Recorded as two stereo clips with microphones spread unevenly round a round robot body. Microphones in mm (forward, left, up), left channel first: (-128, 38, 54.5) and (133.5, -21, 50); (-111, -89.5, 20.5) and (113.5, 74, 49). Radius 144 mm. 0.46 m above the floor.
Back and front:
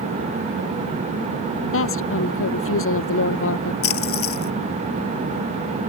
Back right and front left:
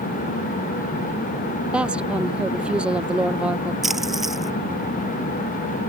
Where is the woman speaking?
125° left.